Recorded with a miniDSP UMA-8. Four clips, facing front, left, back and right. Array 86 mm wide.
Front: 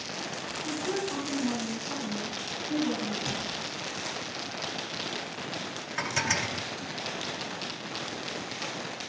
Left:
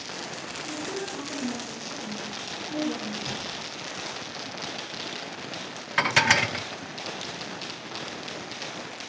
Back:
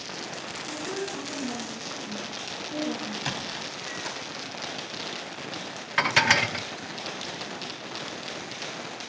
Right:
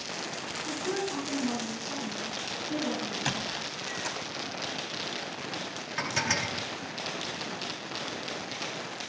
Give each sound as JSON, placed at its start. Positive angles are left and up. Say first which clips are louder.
{"t": 0.7, "sound": "a woman speaking", "louder": "right 2 dB, front 2 dB", "azimuth_deg": -30, "distance_m": 7.5}
{"t": 3.3, "sound": "a squeak", "louder": "right 2 dB, back 1 dB", "azimuth_deg": -130, "distance_m": 3.0}
{"t": 6.0, "sound": "dishes clattering", "louder": "left 9 dB, back 8 dB", "azimuth_deg": 130, "distance_m": 0.6}